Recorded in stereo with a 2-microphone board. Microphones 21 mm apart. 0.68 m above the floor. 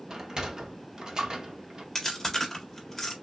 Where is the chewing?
10° left (ahead or behind), 1.7 m.